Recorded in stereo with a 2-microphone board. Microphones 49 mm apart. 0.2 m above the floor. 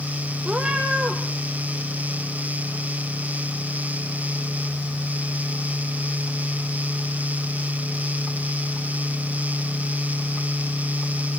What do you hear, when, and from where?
0.5 s a cat meowing: 20° right (ahead or behind), 4 m